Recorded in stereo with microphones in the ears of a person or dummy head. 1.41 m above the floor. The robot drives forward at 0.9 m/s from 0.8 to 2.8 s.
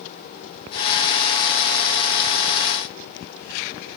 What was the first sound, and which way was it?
Only background noise.